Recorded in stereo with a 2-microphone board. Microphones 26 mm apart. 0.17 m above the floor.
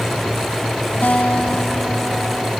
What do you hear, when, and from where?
1.0 s a guitar: 80° left, 3.5 m